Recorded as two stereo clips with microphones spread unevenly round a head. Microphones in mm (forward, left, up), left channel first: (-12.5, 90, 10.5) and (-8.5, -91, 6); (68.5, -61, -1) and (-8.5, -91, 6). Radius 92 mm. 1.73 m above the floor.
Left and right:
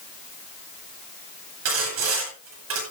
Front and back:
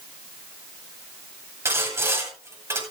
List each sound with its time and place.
1.6 s sawing: 100° right, 9.5 m